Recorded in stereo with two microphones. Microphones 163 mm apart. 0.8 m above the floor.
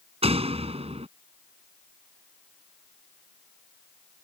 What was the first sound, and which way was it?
A door slam, 40° right (ahead or behind).